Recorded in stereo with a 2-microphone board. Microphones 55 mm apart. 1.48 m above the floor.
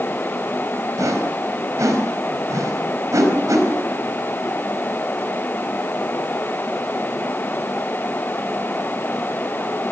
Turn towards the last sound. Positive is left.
turn(degrees=-80)